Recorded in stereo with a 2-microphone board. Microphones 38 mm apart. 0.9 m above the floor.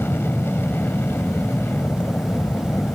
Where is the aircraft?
75° left (ahead or behind).